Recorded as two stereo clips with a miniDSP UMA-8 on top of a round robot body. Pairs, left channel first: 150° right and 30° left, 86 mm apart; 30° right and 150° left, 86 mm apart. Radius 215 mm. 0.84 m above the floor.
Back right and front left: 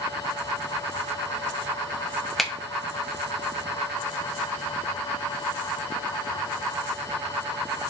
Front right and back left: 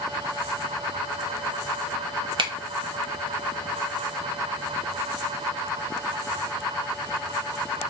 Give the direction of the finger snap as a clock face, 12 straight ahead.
8 o'clock.